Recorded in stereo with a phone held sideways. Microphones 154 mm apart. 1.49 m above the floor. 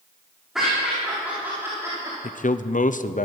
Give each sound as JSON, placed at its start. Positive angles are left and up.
{"t": 0.6, "sound": "laughter", "side_deg": 0, "distance_m": 3.5}
{"t": 2.2, "sound": "a man speaking", "side_deg": 55, "distance_m": 0.5}